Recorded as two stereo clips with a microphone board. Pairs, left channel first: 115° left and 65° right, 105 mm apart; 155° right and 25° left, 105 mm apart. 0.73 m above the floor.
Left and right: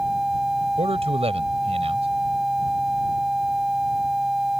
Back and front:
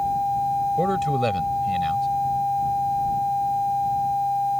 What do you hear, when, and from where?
0.8 s a man speaking: 70° right